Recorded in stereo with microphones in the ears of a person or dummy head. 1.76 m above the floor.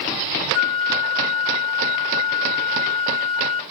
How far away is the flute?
About 1.7 m.